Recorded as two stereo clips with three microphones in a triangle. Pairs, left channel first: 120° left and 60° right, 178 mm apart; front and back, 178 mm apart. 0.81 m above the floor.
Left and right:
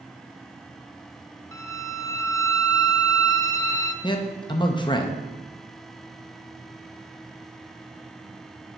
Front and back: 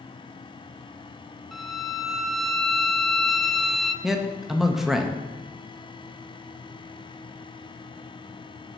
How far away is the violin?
About 0.6 m.